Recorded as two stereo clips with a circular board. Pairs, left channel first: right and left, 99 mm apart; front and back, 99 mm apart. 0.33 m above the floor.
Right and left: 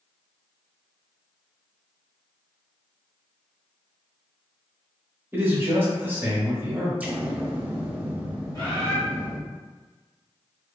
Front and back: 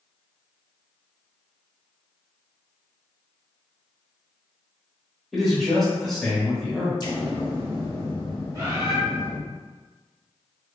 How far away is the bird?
About 1.8 m.